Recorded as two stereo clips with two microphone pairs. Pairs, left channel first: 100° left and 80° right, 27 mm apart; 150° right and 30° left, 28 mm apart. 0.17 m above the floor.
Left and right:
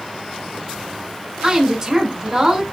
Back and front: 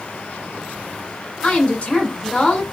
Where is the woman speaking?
135° right, 1.4 m.